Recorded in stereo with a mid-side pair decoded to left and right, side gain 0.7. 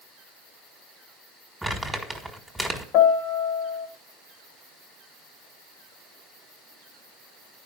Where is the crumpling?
5° right, 1.8 m.